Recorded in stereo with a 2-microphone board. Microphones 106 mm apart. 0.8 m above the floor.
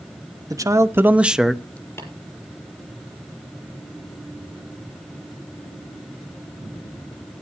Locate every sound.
0.5 s a man speaking: 35° right (ahead or behind), 0.9 m; by 1.9 s 15° left (ahead or behind), 0.7 m
2.0 s tapping: 20° left (ahead or behind), 5.5 m